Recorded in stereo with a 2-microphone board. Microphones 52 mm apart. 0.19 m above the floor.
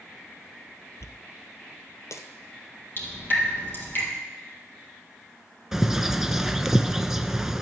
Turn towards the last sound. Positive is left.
turn(degrees=-10)  # may be behind; listen again after turning